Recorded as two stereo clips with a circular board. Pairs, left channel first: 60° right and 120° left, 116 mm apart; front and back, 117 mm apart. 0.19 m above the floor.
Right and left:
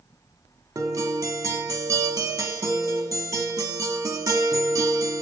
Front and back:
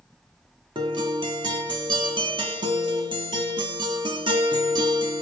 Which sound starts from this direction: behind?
A guitar, at 0.8 s.